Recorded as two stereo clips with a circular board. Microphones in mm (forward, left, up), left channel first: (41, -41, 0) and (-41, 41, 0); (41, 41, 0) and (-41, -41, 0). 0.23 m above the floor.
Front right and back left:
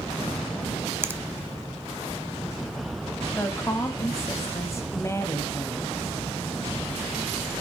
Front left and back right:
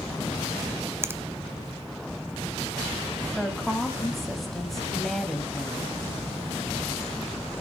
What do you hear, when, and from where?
1.0 s a finger snap: straight behind, 0.8 m
3.4 s a woman speaking: 40° right, 1.4 m